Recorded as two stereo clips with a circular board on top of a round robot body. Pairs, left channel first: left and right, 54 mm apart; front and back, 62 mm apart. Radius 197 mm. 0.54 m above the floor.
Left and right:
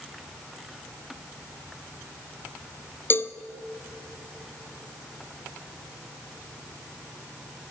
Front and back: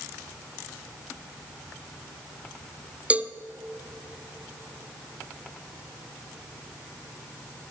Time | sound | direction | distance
3.1 | a cowbell | 120° left | 0.6 m